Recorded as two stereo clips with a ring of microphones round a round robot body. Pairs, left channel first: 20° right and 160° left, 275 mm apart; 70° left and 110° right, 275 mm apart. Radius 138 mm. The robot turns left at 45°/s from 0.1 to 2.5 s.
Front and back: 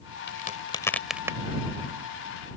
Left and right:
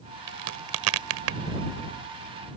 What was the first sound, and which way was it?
A crack, 75° right.